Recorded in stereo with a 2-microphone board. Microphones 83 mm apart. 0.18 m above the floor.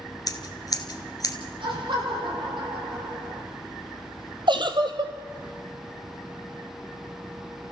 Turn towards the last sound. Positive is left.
turn(degrees=-70)  # may be behind; listen again after turning